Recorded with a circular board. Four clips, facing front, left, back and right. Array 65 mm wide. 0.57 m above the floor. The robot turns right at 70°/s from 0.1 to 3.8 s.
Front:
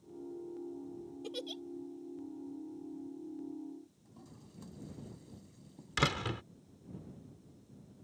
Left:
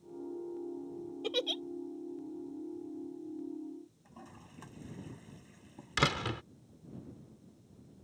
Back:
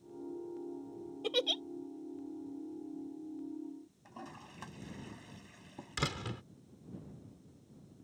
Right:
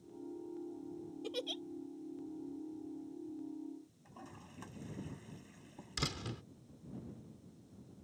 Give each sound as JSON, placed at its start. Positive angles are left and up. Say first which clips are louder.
{"t": 1.2, "sound": "a giggle", "louder": "left 7 dB, back 10 dB", "azimuth_deg": 140}
{"t": 4.0, "sound": "a toilet flushing", "louder": "even, back 7 dB", "azimuth_deg": 180}
{"t": 6.0, "sound": "a door slam", "louder": "left 11 dB, front 5 dB", "azimuth_deg": 65}